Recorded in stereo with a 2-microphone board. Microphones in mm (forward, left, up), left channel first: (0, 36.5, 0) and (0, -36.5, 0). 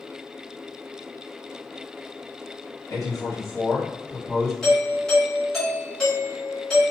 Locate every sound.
2.9 s a man speaking: 55° left (ahead or behind), 1.7 m; by 4.5 s 5° right (ahead or behind), 1.1 m
4.6 s a doorbell: 10° left (ahead or behind), 1.4 m